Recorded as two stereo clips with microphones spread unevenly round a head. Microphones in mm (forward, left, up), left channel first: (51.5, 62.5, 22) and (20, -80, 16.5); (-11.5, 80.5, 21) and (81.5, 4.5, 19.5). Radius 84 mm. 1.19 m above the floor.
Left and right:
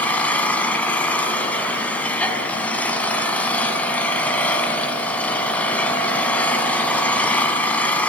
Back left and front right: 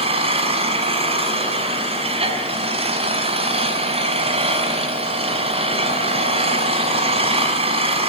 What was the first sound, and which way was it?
An engine running, 5° right.